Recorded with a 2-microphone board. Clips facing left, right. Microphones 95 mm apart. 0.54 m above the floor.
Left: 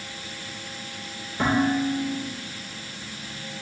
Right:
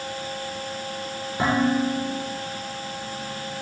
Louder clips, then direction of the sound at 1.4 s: Right 1 dB; 15° right (ahead or behind).